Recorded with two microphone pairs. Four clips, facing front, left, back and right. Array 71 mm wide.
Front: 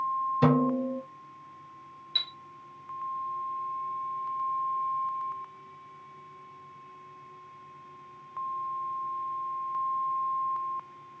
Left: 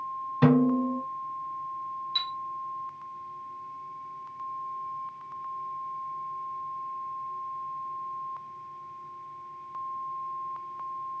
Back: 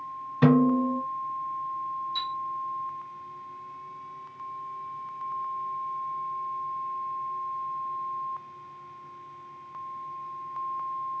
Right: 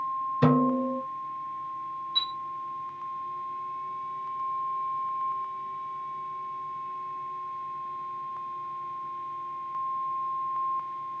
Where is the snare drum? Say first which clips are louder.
Left 2 dB, back 5 dB; 175° left, 1.6 m.